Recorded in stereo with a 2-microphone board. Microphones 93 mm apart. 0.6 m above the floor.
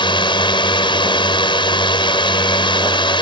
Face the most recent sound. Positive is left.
turn(degrees=65)  # may be behind; listen again after turning